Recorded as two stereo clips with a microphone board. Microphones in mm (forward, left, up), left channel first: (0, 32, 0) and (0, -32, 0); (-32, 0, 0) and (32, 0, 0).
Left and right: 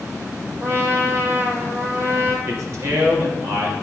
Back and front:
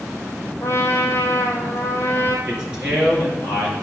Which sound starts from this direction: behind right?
A trumpet, at 0.6 s.